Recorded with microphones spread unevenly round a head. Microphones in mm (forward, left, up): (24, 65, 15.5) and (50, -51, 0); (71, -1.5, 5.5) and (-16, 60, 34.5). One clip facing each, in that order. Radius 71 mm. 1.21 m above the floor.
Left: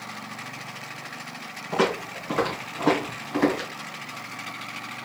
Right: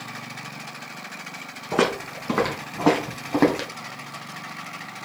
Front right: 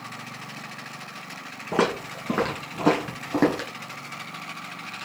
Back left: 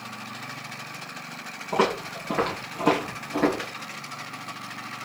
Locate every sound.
1.7 s footsteps: 65° right, 3 m